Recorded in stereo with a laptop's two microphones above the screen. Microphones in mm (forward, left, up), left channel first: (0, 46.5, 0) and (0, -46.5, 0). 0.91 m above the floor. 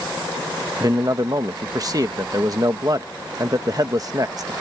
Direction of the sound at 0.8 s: 40° right (ahead or behind).